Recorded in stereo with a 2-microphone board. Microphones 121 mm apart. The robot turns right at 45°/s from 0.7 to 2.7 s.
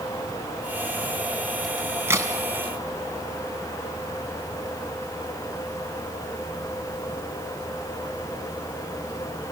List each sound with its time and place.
1.6 s a crack: centre (ahead or behind), 3 m; by 2.3 s 30° right (ahead or behind), 3 m